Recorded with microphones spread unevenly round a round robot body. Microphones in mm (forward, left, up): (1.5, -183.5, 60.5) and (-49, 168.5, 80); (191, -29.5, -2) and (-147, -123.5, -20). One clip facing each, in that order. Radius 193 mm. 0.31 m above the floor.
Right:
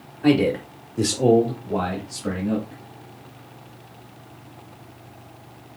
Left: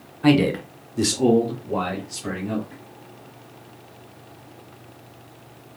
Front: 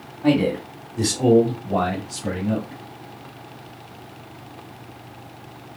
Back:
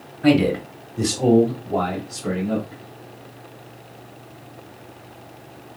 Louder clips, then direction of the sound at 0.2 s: Even, back 2 dB; 155° left.